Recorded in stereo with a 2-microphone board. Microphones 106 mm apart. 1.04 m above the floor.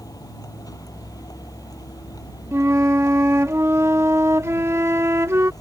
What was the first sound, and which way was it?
A vehicle, 35° left (ahead or behind).